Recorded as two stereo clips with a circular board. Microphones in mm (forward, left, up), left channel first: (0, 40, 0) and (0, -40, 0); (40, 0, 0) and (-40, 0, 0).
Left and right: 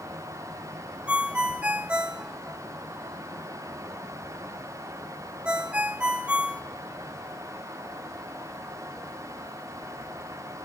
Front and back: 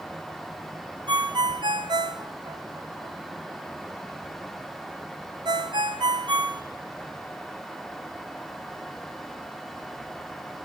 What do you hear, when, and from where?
1.1 s a ringtone: 165° right, 0.8 m